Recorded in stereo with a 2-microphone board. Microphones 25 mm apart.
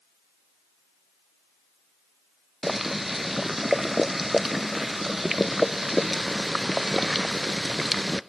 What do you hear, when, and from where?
2.6 s boiling: 10° right (ahead or behind), 0.5 m